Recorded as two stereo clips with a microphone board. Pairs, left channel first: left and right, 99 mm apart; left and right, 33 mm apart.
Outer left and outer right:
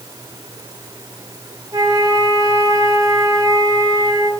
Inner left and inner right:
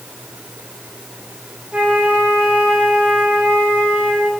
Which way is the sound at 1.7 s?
40° right (ahead or behind).